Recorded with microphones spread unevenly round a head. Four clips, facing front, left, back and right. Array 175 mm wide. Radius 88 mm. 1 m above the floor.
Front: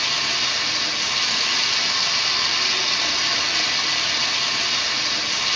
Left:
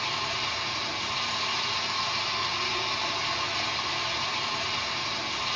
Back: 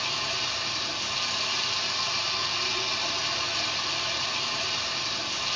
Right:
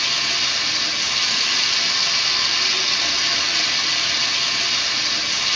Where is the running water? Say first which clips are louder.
Right 3 dB, front 5 dB; 45° right, 0.8 m.